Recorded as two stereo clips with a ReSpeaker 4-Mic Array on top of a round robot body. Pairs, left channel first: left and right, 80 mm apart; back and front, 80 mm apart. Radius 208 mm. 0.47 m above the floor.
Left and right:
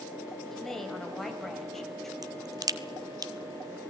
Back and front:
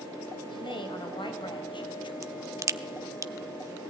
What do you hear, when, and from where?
0.5 s a woman speaking: 175° left, 4 m
2.2 s a crack: 50° right, 1.1 m